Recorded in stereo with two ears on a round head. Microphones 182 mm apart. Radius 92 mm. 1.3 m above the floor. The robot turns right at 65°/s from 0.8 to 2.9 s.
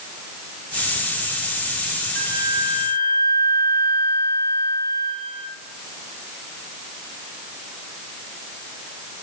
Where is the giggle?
I don't hear a giggle.